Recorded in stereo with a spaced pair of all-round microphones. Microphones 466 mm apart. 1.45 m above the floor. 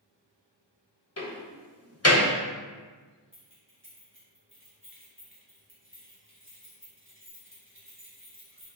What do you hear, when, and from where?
1.2 s a door slam: 30° left (ahead or behind), 1.4 m
3.3 s keys jangling: 25° right (ahead or behind), 2.5 m